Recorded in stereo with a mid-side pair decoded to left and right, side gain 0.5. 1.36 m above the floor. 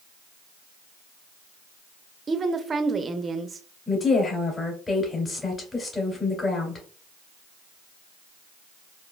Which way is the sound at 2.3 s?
35° right.